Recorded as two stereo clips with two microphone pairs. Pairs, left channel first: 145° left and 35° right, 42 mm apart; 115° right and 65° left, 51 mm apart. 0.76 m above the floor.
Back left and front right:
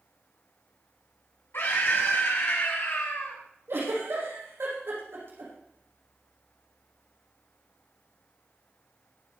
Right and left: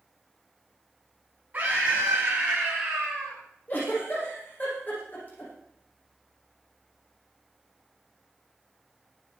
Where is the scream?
125° left, 7.5 m; by 3.4 s 140° left, 7 m.